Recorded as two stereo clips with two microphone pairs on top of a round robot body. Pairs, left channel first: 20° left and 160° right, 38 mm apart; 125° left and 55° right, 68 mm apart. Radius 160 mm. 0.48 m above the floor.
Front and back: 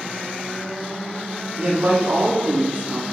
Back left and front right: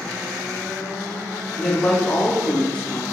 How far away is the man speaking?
About 1.3 m.